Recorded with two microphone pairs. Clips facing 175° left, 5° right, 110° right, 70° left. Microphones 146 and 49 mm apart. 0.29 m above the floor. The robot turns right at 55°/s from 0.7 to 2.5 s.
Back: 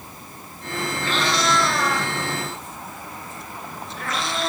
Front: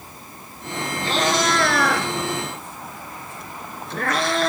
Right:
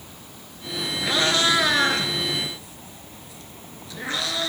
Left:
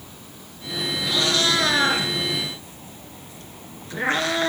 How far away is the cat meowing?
About 2 m.